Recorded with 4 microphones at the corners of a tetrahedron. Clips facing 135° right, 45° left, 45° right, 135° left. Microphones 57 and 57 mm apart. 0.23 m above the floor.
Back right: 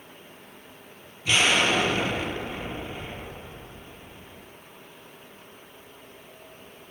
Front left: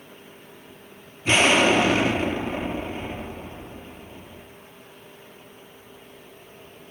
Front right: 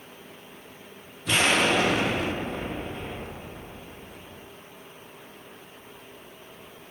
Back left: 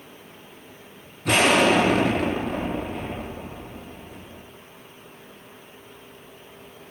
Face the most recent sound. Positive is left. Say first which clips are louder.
# front left 4 dB, back left 4 dB
turn(degrees=105)